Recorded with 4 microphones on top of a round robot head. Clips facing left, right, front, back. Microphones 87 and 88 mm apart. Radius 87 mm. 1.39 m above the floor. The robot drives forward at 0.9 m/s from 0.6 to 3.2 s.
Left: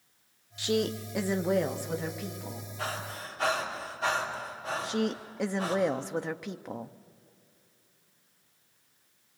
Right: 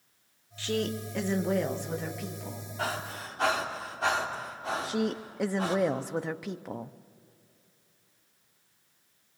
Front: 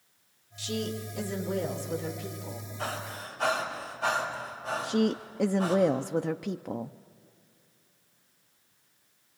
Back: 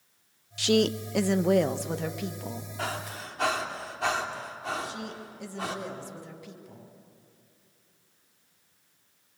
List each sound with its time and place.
0.6 s a woman speaking: 165° left, 0.7 m; by 2.7 s 175° left, 2.5 m
2.8 s breathing: 145° right, 3 m; by 5.8 s 150° right, 3 m
4.8 s a woman speaking: 5° right, 0.5 m